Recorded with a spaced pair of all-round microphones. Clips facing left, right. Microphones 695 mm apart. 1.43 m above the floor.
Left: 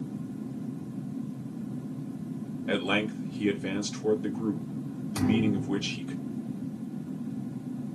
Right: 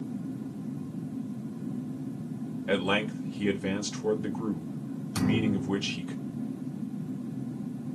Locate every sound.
2.7 s a man speaking: 30° right (ahead or behind), 0.9 m
5.2 s a thud: 40° right (ahead or behind), 1.1 m